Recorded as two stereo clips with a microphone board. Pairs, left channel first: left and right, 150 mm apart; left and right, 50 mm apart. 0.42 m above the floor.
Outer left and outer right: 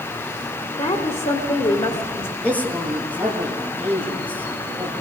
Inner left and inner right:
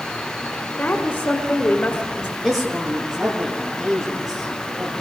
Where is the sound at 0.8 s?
45° left (ahead or behind), 1.7 m.